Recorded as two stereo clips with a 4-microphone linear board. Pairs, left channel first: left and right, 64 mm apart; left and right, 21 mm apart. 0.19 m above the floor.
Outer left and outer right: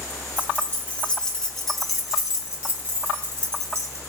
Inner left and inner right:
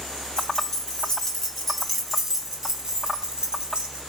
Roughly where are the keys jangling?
Left.